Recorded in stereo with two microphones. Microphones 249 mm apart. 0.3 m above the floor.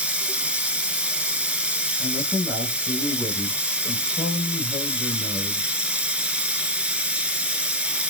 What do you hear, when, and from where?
0.0 s running water: 5° right (ahead or behind), 0.8 m
2.0 s a man speaking: 5° right (ahead or behind), 1.8 m